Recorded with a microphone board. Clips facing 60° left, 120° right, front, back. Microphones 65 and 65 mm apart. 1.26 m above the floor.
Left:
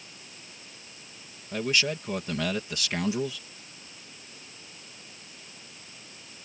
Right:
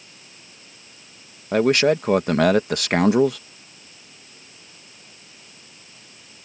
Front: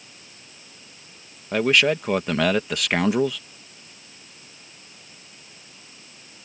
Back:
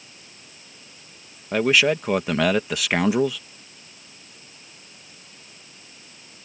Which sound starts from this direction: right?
A man speaking, at 1.5 s.